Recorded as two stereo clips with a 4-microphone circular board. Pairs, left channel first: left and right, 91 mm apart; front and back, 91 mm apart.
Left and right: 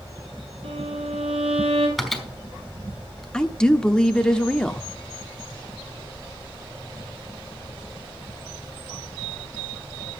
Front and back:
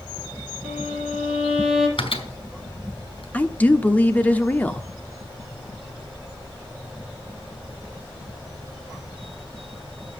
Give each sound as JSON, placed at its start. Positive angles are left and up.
{"t": 0.6, "sound": "a violin", "azimuth_deg": -100, "distance_m": 3.5}
{"t": 2.0, "sound": "a microwave", "azimuth_deg": 0, "distance_m": 3.0}
{"t": 3.3, "sound": "a woman speaking", "azimuth_deg": 30, "distance_m": 1.0}